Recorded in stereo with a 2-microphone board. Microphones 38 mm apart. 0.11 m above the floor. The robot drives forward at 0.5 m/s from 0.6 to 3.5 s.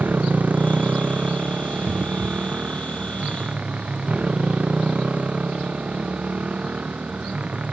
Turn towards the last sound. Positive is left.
turn(degrees=-40)  # may be behind; listen again after turning